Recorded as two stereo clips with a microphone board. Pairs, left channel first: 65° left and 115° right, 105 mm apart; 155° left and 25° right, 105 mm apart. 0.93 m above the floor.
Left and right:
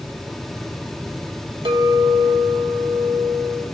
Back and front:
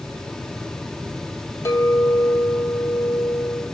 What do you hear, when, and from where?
1.6 s a clink: 145° right, 1.3 m